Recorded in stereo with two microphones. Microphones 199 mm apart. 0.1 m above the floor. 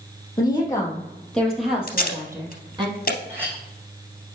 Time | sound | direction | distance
0.4 | a woman speaking | 20° left (ahead or behind) | 3 m
1.9 | tape being pulled | 55° left (ahead or behind) | 2.5 m
3.3 | a clink | 10° right (ahead or behind) | 3.5 m